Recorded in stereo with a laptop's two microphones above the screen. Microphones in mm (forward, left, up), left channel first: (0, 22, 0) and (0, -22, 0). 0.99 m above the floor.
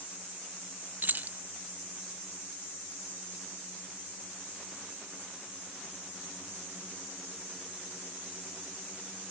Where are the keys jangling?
40° right (ahead or behind).